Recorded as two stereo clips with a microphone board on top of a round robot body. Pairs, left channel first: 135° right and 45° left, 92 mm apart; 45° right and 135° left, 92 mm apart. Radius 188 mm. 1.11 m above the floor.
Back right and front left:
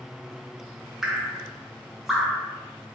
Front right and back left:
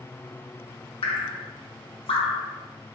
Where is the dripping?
40° right, 0.8 m.